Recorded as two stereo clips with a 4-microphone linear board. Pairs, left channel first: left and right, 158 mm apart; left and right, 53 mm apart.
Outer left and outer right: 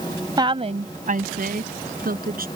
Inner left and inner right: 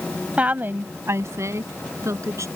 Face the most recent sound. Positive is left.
turn(degrees=-70)  # may be behind; listen again after turning